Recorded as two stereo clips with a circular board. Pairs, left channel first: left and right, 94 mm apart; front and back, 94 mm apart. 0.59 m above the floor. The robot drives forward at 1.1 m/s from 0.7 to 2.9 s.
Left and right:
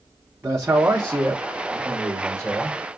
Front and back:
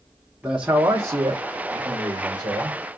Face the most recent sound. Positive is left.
turn(degrees=-170)